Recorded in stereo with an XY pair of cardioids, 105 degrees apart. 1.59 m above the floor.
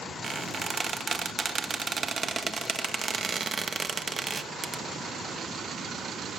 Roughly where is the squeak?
Ahead right.